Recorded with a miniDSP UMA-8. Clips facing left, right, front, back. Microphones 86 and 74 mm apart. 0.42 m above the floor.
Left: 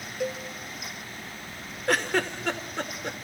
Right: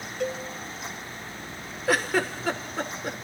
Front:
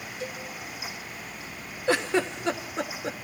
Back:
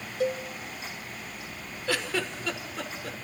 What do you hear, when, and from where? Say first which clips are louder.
0.2 s a cowbell: right 1 dB, back 10 dB; 175° left, 1.7 m
1.9 s a giggle: right 1 dB, front 5 dB; 10° right, 1.2 m